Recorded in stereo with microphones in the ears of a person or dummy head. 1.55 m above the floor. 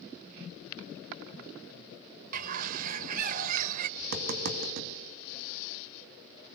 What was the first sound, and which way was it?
A bird, 45° right (ahead or behind).